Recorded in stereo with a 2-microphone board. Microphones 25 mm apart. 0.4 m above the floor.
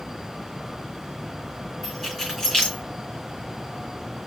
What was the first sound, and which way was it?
Keys jangling, 10° left (ahead or behind).